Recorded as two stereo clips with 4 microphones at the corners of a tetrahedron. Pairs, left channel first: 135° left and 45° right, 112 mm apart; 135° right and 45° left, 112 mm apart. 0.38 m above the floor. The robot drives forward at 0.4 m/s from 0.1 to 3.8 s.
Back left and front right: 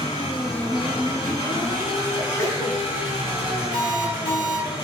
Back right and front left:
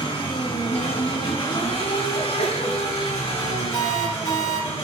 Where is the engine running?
Straight behind, 3 m.